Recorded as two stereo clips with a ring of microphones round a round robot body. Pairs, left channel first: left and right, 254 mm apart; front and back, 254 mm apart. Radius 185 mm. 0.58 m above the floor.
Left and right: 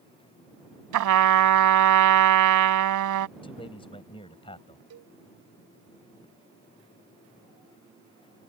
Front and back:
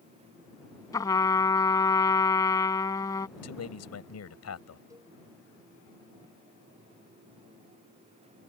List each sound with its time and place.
0.9 s a trumpet: 80° right
3.4 s a man speaking: 15° left
4.9 s a cowbell: 100° right